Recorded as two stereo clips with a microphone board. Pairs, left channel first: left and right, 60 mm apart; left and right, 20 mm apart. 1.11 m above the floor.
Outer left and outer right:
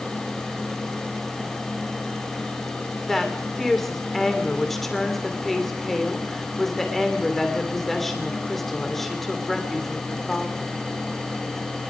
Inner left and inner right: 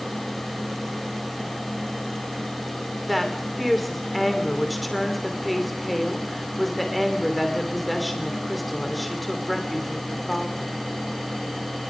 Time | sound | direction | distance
3.1 | a woman speaking | 5° left (ahead or behind) | 3 m